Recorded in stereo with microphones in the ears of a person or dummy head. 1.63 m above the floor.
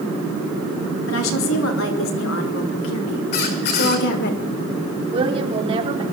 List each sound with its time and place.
1.1 s a woman speaking: 80° left, 4.5 m; by 4.3 s 55° left (ahead or behind), 3.5 m
3.3 s a squeak: 50° left (ahead or behind), 5 m
5.1 s a woman speaking: 30° right (ahead or behind), 4 m